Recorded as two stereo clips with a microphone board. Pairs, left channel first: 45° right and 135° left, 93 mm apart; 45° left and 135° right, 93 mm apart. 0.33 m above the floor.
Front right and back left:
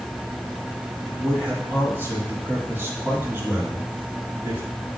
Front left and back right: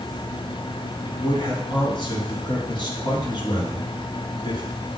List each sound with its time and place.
1.1 s a man speaking: 70° left, 3.5 m